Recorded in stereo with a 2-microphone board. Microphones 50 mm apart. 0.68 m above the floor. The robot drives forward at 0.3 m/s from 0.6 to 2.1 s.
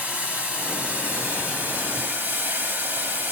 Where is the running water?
25° right (ahead or behind), 1.7 m; by 3.3 s 35° right (ahead or behind), 1.4 m.